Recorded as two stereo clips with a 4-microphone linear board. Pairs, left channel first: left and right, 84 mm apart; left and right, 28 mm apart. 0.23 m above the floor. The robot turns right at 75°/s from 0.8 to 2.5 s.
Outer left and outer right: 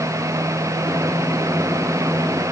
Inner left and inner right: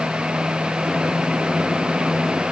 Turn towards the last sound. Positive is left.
No sound to turn to.